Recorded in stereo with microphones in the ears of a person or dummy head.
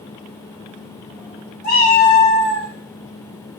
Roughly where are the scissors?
No scissors in this recording.